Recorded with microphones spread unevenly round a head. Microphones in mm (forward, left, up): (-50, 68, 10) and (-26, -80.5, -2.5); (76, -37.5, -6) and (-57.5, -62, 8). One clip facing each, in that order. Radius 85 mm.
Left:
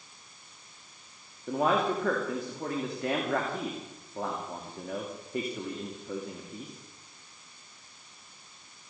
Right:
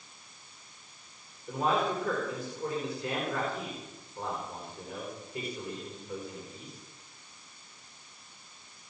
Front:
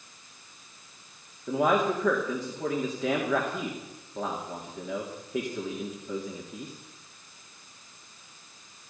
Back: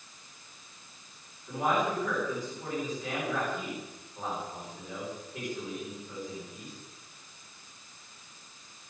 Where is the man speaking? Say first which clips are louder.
Left 2 dB, front 5 dB; 45° left, 2.5 m.